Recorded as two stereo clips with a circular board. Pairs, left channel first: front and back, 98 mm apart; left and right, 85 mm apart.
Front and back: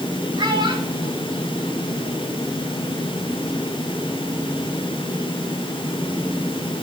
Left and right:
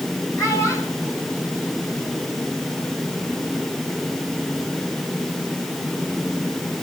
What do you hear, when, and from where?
0.4 s a child speaking: 140° left, 6.5 m